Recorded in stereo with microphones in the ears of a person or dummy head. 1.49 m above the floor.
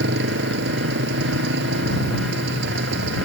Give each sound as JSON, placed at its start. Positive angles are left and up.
{"t": 0.0, "sound": "a motorcycle", "side_deg": -75}